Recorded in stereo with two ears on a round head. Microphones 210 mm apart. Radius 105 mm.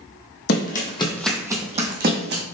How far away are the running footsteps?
About 1.0 m.